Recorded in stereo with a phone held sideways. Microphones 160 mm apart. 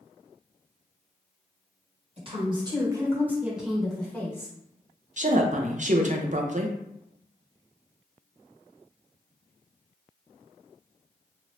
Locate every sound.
2.2 s a woman speaking: 35° right (ahead or behind), 1.4 m; by 4.5 s 15° left (ahead or behind), 1.4 m
5.2 s a woman speaking: 50° right (ahead or behind), 0.6 m